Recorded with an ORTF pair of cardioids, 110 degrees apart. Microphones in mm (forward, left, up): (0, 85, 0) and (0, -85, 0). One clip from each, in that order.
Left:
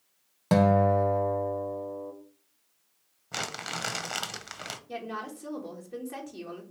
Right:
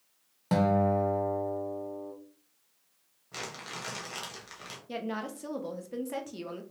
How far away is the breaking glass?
No breaking glass in this recording.